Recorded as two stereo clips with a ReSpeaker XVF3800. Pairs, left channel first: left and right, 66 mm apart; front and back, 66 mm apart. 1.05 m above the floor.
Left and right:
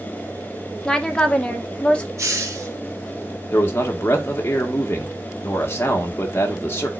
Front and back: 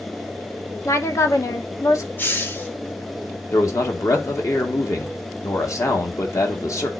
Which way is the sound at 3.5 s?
35° left.